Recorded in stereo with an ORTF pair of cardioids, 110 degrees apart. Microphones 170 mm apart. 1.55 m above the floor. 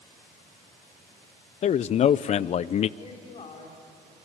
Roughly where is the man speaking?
Ahead left.